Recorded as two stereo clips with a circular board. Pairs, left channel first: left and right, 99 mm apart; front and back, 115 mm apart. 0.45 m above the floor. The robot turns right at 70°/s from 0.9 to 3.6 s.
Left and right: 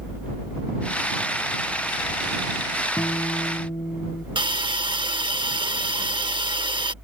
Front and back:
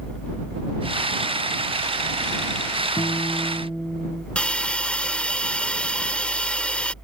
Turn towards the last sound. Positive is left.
turn(degrees=-80)